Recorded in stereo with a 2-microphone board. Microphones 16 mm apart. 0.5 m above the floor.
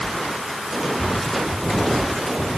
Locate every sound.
Only background noise.